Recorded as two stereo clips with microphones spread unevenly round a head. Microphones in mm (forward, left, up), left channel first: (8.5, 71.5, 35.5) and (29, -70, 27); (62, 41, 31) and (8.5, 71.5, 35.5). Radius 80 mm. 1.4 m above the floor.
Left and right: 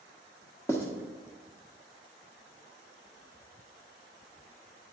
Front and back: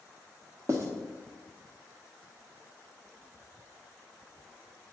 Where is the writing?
165° left, 1.1 m.